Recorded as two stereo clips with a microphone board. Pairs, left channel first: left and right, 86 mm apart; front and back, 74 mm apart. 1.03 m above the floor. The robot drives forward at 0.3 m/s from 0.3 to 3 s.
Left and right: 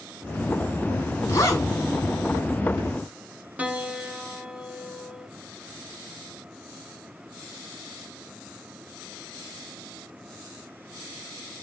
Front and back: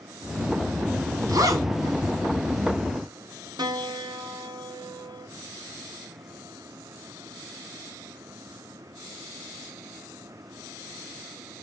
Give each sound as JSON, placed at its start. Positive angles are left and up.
{"t": 1.3, "sound": "a zipper", "azimuth_deg": 145, "distance_m": 3.0}
{"t": 3.6, "sound": "a piano", "azimuth_deg": -165, "distance_m": 1.2}